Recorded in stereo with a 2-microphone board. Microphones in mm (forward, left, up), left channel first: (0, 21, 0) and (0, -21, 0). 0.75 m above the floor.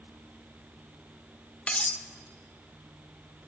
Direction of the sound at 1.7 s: 30° left (ahead or behind).